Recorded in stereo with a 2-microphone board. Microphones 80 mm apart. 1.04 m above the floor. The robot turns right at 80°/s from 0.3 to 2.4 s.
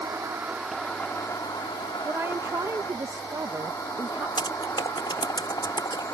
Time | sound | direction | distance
0.0 | an insect | 35° right | ?
2.0 | a woman speaking | 15° right (ahead or behind) | ?
4.4 | typing on a keyboard | 80° left | ?